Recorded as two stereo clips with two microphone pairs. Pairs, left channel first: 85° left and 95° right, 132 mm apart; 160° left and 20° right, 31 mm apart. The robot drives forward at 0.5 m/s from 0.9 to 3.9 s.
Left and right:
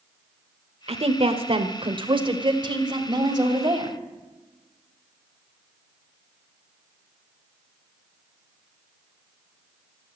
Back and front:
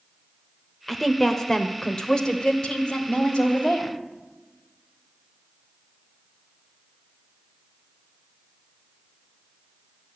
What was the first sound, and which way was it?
A woman speaking, 120° right.